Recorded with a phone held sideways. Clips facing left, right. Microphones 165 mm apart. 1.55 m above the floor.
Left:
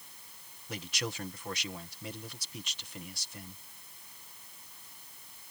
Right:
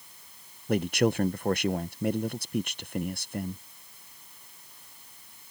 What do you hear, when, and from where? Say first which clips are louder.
0.7 s a man speaking: right 15 dB; 50° right (ahead or behind)